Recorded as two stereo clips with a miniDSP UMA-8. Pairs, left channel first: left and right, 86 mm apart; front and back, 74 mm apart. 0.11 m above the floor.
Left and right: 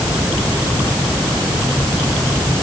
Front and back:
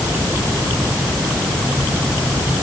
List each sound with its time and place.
Only background noise.